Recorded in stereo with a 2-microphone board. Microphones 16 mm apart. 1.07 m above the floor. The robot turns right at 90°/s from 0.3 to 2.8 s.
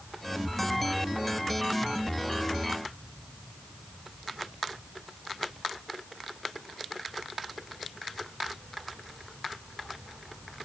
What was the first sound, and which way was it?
Only background noise.